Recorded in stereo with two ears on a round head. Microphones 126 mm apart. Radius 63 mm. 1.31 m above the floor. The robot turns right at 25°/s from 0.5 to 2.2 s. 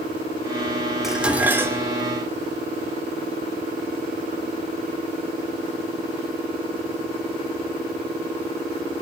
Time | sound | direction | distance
1.0 | dishes clattering | centre (ahead or behind) | 2.5 m